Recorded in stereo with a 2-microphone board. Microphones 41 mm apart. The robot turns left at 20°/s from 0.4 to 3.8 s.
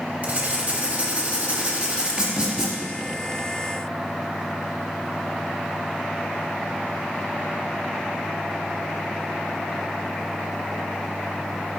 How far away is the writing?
About 0.8 m.